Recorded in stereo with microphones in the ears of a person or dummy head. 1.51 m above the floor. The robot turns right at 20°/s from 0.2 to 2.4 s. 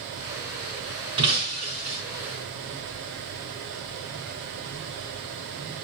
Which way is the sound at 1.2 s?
30° right (ahead or behind).